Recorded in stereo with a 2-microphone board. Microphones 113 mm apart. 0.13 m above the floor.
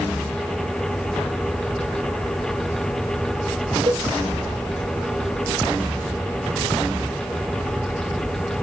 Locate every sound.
3.9 s a cowbell: 50° right (ahead or behind), 2 m